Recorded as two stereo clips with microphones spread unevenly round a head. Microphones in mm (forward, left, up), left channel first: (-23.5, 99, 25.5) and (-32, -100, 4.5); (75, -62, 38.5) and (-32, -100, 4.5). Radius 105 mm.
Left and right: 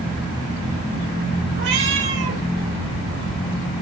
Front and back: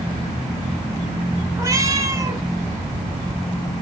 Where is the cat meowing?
90° right, 1.8 m.